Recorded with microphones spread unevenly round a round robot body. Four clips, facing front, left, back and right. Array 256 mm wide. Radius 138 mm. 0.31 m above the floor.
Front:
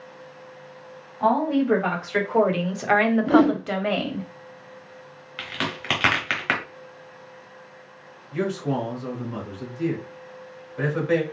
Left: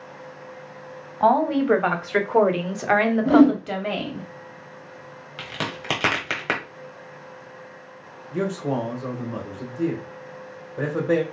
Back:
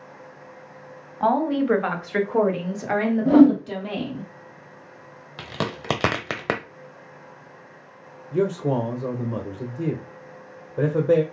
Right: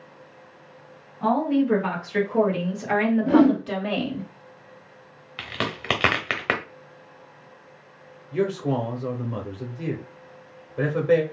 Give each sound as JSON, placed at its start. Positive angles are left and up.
{"t": 1.2, "sound": "a woman speaking", "azimuth_deg": 100, "distance_m": 1.6}
{"t": 3.2, "sound": "a whoosh", "azimuth_deg": 150, "distance_m": 2.5}
{"t": 5.4, "sound": "a crack", "azimuth_deg": -175, "distance_m": 0.8}
{"t": 8.3, "sound": "a man speaking", "azimuth_deg": 160, "distance_m": 1.1}